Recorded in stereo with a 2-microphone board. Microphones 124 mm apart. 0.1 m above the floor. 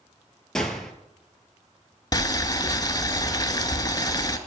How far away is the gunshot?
About 1.1 m.